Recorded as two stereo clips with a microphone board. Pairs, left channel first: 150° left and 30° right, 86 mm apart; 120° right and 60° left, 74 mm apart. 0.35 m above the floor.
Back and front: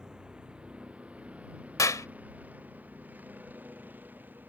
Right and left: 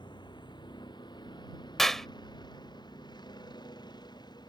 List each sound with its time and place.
0.0 s a vehicle: 110° right; by 4.5 s 100° right
1.8 s a clap: 155° left